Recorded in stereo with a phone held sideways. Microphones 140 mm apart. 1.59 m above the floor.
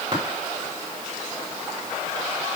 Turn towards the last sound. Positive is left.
turn(degrees=-40)  # may be behind; listen again after turning